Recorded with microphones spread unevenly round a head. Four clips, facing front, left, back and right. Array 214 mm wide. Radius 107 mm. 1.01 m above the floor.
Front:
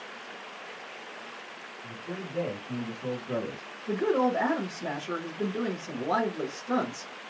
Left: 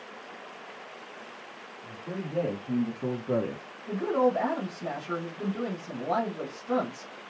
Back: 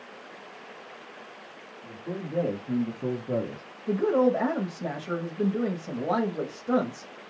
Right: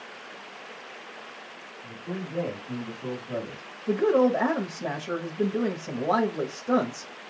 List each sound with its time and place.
1.8 s a man speaking: 165° left, 2.5 m; by 3.7 s 75° left, 0.8 m
3.9 s a woman speaking: 130° right, 1.3 m